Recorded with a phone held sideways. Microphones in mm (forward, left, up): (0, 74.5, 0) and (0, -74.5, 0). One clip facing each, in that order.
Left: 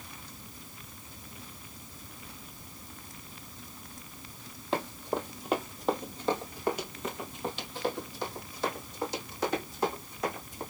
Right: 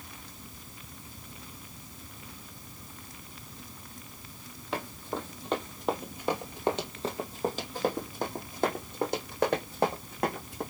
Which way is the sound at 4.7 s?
25° left (ahead or behind).